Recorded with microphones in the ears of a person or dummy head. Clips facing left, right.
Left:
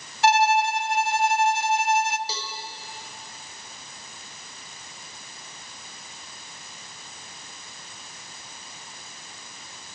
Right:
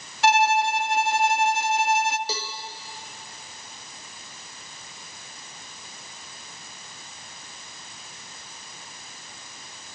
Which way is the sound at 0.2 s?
70° right (ahead or behind).